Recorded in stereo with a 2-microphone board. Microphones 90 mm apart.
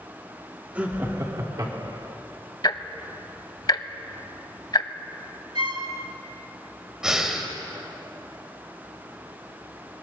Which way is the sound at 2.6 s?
50° left (ahead or behind).